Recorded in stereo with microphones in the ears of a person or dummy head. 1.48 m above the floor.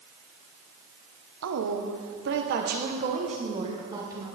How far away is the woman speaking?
About 1.4 m.